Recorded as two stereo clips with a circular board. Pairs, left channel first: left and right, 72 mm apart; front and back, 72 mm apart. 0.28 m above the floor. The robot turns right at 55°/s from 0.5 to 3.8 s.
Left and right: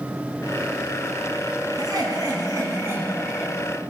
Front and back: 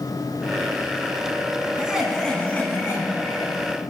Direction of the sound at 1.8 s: 105° right.